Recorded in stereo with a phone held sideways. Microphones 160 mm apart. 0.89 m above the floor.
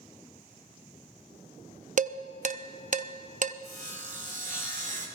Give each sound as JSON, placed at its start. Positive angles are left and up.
{"t": 2.0, "sound": "dishes clattering", "side_deg": -50, "distance_m": 0.5}
{"t": 3.6, "sound": "sawing", "side_deg": -50, "distance_m": 2.0}